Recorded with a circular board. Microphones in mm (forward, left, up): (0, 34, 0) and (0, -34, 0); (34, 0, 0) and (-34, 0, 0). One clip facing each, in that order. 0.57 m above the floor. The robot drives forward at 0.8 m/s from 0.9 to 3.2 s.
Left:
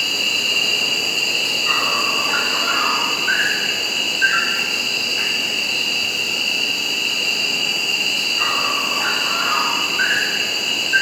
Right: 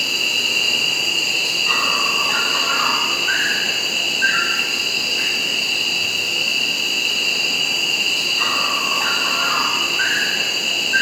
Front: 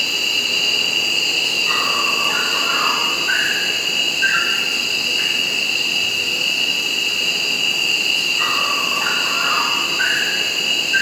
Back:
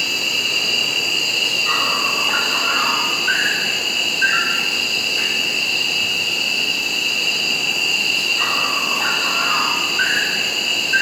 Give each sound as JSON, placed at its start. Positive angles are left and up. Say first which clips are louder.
{"t": 0.0, "sound": "an insect", "louder": "even, even", "azimuth_deg": 125, "distance_m": 3.5}